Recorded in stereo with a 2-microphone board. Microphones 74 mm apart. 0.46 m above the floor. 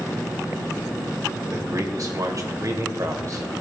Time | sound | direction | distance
1.5 | a man speaking | 50° right (ahead or behind) | 1.9 m